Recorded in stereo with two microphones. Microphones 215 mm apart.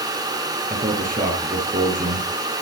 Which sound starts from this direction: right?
A man speaking, at 0.7 s.